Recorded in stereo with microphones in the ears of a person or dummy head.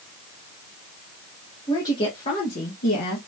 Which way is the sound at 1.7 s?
20° left (ahead or behind).